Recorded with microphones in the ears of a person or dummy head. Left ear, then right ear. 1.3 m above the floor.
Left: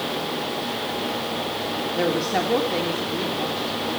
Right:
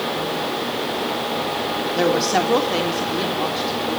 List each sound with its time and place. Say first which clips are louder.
2.0 s a woman speaking: right 5 dB; 15° right (ahead or behind), 3.5 m